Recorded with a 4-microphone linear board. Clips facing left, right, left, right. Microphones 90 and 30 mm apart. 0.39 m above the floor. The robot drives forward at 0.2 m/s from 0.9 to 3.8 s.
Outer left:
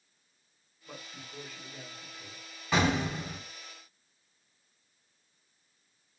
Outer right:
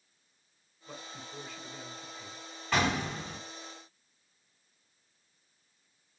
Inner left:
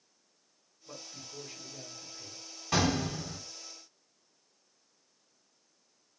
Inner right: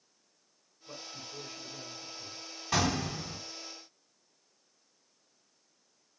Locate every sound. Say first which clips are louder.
0.9 s a man speaking: outer right 2 dB, inner right 2 dB; centre (ahead or behind), 1.7 m
2.7 s an explosion: outer left 2 dB, inner left 1 dB; 10° left (ahead or behind), 1.9 m